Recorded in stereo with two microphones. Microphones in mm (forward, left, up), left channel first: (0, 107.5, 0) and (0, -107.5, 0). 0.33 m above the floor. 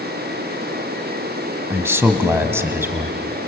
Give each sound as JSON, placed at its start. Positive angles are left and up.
{"t": 1.7, "sound": "a man speaking", "side_deg": -10, "distance_m": 1.7}